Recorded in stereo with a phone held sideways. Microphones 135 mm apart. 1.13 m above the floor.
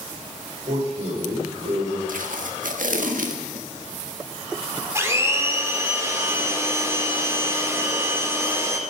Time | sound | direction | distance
0.7 | a man speaking | 55° right (ahead or behind) | 5.5 m
2.1 | tape being pulled | 85° right | 1.7 m
5.0 | a blender | 20° right (ahead or behind) | 2 m